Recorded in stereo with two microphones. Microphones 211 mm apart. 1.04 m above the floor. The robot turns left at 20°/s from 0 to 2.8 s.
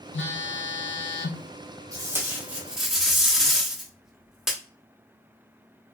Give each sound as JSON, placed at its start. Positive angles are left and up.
{"t": 0.1, "sound": "a phone buzzing", "side_deg": 75, "distance_m": 0.5}
{"t": 1.9, "sound": "tape being pulled", "side_deg": -15, "distance_m": 0.9}